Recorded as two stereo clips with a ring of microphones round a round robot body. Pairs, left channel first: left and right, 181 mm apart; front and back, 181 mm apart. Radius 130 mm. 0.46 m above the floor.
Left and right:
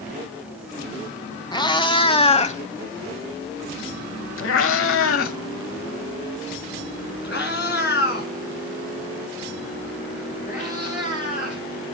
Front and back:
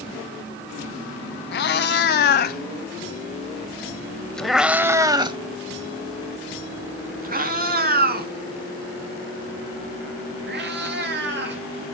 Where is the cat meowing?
20° left, 1.7 m; by 11.7 s 155° left, 4.5 m.